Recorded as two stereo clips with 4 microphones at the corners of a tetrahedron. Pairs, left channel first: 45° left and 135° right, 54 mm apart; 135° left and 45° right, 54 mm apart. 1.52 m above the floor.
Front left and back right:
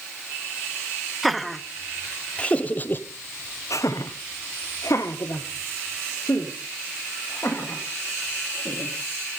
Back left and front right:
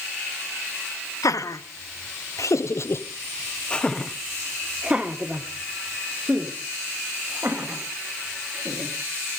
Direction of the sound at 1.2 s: 135° left.